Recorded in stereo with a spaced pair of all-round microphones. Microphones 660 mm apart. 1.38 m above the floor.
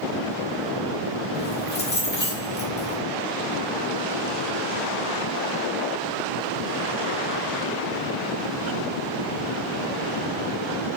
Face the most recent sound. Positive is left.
turn(degrees=15)  # may be behind; listen again after turning